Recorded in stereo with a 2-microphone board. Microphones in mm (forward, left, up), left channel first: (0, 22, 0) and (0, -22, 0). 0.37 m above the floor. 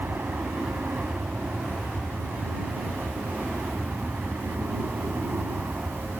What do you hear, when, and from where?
0.0 s an aircraft: 50° right (ahead or behind); by 6.2 s 45° right (ahead or behind)